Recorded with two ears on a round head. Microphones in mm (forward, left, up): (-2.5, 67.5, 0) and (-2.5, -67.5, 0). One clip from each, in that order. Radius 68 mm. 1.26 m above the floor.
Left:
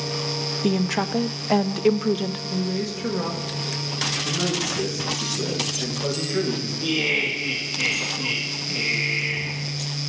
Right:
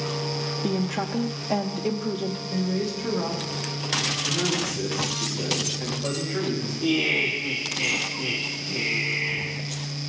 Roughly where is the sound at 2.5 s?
Left.